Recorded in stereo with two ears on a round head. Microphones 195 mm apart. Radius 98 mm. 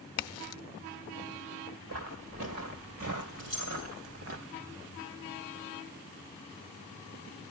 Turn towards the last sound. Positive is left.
turn(degrees=-75)  # may be behind; listen again after turning